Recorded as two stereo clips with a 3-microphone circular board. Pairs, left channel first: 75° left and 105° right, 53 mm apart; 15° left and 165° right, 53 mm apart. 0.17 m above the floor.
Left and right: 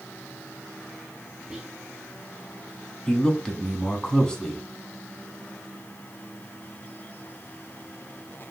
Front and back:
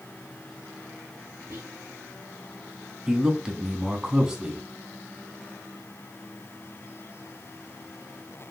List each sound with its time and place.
1.5 s whispering: straight behind, 2 m
3.1 s a man speaking: 130° left, 1.1 m